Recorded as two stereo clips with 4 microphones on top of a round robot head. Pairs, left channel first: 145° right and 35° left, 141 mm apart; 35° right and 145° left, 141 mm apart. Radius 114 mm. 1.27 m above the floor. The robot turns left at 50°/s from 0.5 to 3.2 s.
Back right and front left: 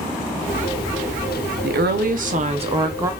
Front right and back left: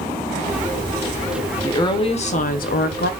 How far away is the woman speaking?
About 0.6 m.